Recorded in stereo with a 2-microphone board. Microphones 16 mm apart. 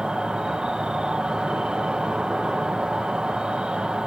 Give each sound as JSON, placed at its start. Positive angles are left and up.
{"t": 0.0, "sound": "an insect", "side_deg": -85, "distance_m": 0.8}